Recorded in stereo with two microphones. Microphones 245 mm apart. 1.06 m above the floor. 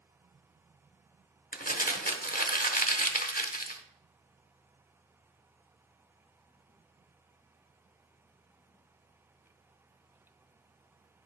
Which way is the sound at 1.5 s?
35° left (ahead or behind).